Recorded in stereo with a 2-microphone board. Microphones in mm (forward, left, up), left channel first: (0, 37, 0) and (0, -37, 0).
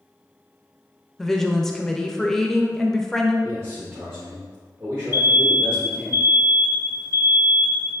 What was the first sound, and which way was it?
A woman speaking, 5° left (ahead or behind).